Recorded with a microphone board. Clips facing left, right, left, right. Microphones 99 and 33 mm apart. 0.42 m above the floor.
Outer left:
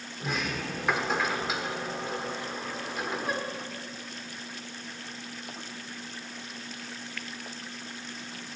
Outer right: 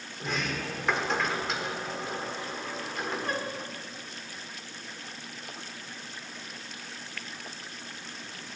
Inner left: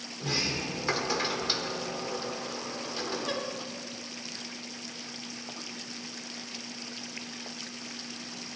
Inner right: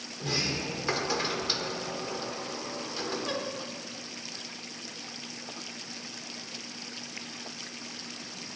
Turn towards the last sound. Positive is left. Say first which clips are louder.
# even, even
turn(degrees=5)  # may be behind; listen again after turning